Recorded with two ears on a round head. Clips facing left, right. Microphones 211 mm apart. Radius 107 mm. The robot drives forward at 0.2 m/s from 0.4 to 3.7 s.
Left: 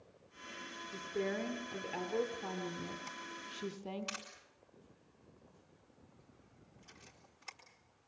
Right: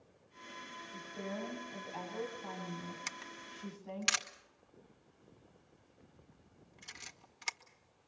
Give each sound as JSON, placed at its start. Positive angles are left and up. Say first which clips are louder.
{"t": 0.9, "sound": "a woman speaking", "louder": "left 6 dB", "side_deg": 85, "distance_m": 3.5}
{"t": 3.1, "sound": "a camera shutter", "louder": "left 2 dB", "side_deg": -75, "distance_m": 1.5}